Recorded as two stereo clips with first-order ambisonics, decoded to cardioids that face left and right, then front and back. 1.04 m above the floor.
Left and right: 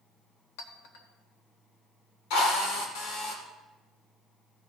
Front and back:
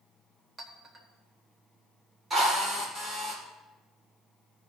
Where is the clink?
105° left, 1.4 m.